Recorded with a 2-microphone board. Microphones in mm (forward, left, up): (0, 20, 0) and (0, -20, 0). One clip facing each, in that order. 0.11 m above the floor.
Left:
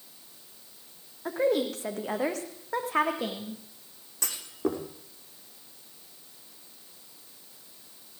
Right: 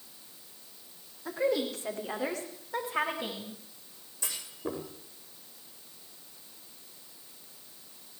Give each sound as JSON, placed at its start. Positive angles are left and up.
{"t": 1.2, "sound": "a woman speaking", "side_deg": 45, "distance_m": 6.0}
{"t": 4.2, "sound": "a clunk", "side_deg": 70, "distance_m": 6.0}